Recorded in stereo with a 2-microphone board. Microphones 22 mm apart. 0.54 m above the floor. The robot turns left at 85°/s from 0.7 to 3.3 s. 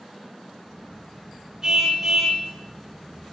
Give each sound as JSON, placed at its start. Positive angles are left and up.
{"t": 1.6, "sound": "a car horn", "azimuth_deg": -145, "distance_m": 4.5}